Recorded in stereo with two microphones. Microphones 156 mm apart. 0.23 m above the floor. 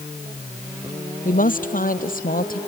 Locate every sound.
1.2 s a woman speaking: 60° left (ahead or behind); by 2.6 s 65° left (ahead or behind)